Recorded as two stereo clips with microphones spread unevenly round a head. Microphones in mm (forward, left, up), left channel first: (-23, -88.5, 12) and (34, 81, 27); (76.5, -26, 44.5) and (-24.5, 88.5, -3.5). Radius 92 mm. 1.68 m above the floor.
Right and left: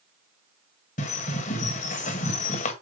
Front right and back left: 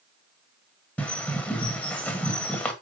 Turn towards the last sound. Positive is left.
turn(degrees=-90)